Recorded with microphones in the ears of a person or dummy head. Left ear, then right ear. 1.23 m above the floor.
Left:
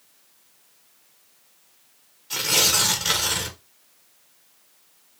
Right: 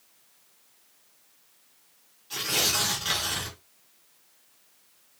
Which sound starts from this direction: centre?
Tearing paper, at 2.3 s.